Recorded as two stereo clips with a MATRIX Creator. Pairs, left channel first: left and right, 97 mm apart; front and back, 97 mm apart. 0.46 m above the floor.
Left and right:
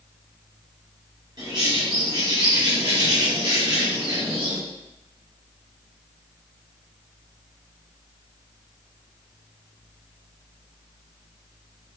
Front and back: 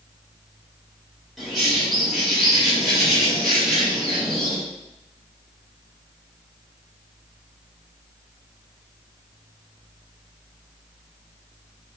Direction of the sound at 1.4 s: 90° right.